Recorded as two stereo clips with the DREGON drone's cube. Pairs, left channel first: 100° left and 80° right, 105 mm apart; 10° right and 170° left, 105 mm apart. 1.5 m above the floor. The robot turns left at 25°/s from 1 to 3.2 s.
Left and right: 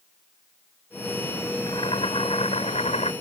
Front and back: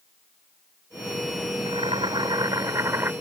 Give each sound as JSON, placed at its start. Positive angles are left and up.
{"t": 1.7, "sound": "boiling", "azimuth_deg": 140}